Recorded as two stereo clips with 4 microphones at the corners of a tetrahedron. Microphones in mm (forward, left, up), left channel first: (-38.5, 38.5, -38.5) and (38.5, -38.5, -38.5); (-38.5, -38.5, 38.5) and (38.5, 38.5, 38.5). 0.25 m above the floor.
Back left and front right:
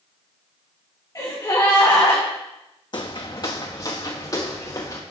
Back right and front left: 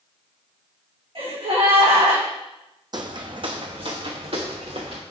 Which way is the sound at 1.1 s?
70° left.